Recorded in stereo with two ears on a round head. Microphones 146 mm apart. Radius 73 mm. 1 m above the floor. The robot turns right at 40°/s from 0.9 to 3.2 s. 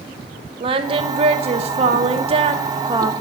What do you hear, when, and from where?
0.6 s singing: 125° right, 0.7 m; by 3.1 s 35° right, 0.7 m